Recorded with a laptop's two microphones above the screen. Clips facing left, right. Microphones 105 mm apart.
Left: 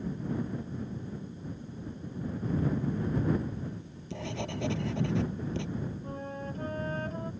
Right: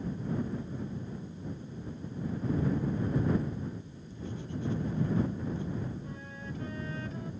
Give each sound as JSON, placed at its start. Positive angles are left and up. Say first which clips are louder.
{"t": 3.6, "sound": "writing", "louder": "even", "side_deg": 85}
{"t": 6.0, "sound": "a flute", "louder": "left 5 dB", "side_deg": 50}